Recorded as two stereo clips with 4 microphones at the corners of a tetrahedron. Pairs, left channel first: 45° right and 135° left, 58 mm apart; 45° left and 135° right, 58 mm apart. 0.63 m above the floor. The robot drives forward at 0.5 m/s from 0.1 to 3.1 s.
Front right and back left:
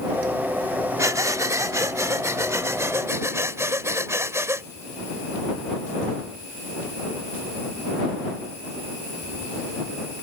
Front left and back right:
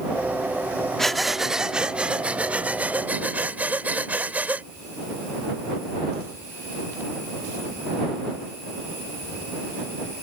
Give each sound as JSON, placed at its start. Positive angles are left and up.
{"t": 1.0, "sound": "breathing", "azimuth_deg": 130}